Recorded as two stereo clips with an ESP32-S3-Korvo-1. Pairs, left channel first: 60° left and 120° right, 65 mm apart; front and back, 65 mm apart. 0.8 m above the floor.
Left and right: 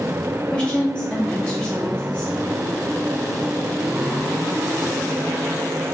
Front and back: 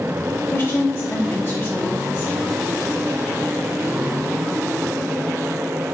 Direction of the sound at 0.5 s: Straight ahead.